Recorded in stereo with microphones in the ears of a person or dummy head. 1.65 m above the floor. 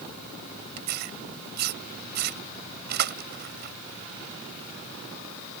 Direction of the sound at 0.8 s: 50° right (ahead or behind).